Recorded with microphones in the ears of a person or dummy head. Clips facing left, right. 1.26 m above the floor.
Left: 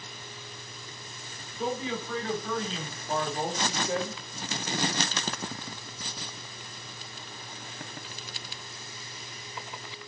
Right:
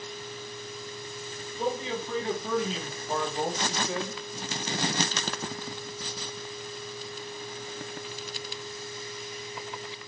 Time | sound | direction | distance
1.6 | a man speaking | 30° right (ahead or behind) | 1.4 m